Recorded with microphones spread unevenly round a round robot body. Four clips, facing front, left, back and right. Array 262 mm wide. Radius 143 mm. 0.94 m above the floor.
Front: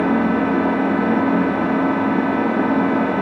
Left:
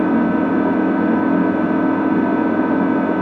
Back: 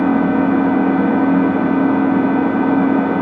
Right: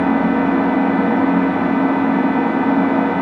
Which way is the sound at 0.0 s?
160° right.